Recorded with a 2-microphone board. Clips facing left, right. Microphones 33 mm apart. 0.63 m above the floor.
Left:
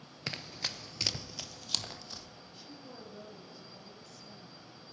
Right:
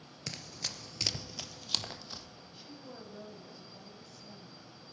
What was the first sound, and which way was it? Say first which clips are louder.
Running footsteps: left 3 dB; 30° left (ahead or behind).